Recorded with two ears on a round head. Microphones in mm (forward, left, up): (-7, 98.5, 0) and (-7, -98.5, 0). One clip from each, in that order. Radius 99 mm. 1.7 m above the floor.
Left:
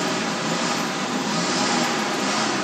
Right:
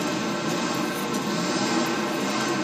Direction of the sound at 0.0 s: 45° left (ahead or behind).